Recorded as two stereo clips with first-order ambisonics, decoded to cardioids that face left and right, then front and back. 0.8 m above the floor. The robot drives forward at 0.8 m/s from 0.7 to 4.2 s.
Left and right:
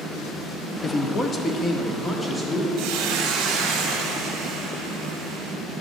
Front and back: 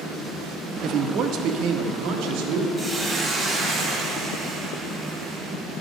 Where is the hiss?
100° right, 2.0 m; by 5.5 s 125° right, 2.5 m.